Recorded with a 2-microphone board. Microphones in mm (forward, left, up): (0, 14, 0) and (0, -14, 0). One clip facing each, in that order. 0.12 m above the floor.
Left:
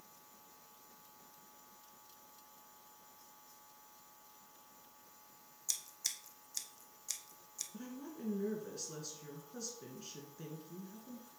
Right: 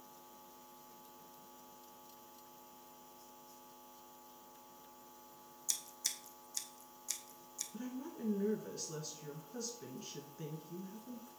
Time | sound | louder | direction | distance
5.7 | scissors | even | 5° left (ahead or behind) | 1.1 m
7.7 | a woman speaking | right 4 dB | 5° right (ahead or behind) | 1.6 m